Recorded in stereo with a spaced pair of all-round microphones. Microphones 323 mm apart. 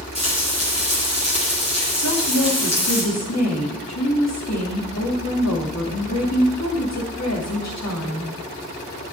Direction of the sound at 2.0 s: 55° left (ahead or behind).